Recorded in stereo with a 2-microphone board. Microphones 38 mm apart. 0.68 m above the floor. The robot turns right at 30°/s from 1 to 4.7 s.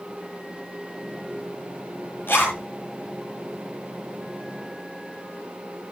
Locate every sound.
2.3 s a zipper: 70° left (ahead or behind), 8 m; by 2.6 s 80° left, 8 m